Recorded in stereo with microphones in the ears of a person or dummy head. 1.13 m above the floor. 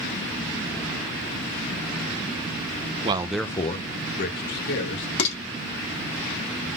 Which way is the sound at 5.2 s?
75° left (ahead or behind).